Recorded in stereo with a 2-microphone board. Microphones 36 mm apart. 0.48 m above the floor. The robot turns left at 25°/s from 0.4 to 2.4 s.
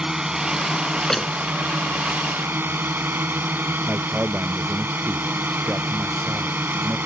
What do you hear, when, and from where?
0.0 s a drone: 20° right; by 7.1 s 70° right
1.0 s a door slam: 20° left (ahead or behind); by 1.3 s 10° left (ahead or behind)
3.9 s a man speaking: 45° right (ahead or behind)